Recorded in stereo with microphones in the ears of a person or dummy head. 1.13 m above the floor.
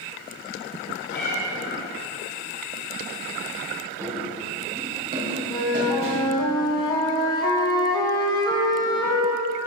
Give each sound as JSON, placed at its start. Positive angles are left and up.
{"t": 1.1, "sound": "a cat meowing", "side_deg": 70, "distance_m": 1.6}
{"t": 4.0, "sound": "running footsteps", "side_deg": -15, "distance_m": 2.0}
{"t": 5.5, "sound": "a flute", "side_deg": 30, "distance_m": 1.2}